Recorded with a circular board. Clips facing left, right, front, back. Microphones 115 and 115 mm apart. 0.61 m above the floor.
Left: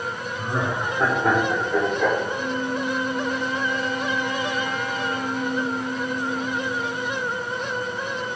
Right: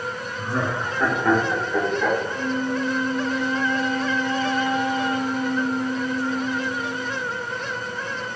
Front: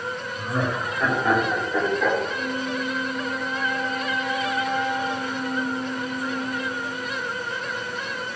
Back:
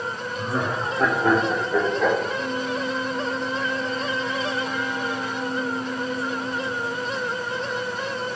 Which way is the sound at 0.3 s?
150° left.